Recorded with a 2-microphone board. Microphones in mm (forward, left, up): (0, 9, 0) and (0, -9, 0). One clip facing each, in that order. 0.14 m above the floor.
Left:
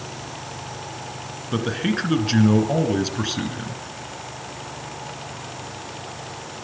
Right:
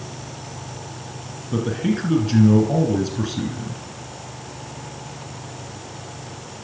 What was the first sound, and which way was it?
A man speaking, 40° left (ahead or behind).